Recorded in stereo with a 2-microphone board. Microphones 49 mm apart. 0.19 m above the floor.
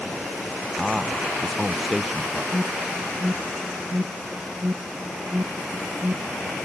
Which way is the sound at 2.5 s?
50° right (ahead or behind).